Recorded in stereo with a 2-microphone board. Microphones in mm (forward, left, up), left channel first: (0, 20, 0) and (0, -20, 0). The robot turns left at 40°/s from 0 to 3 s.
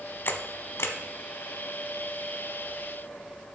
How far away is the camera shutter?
About 0.7 m.